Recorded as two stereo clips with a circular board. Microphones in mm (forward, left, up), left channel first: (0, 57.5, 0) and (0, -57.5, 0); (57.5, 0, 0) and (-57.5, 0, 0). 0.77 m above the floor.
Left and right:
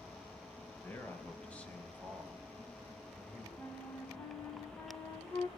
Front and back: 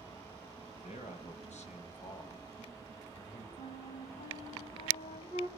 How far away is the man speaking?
About 4 m.